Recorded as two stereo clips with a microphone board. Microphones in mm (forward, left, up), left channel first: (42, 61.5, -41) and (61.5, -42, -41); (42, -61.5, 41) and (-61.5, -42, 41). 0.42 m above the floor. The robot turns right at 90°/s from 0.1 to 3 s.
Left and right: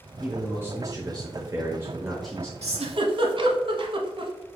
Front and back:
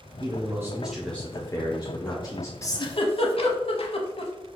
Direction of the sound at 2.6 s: 75° right.